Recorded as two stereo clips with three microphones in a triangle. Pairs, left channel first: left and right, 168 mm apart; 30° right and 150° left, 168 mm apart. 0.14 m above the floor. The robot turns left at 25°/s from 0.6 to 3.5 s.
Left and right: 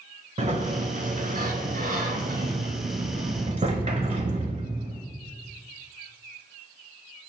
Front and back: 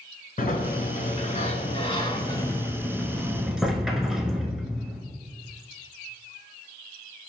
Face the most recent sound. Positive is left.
turn(degrees=-125)